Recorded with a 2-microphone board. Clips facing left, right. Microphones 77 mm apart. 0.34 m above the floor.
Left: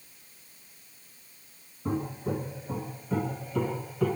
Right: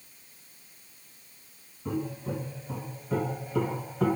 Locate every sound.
1.9 s footsteps: 25° left (ahead or behind), 1.6 m; by 4.2 s 30° right (ahead or behind), 1.3 m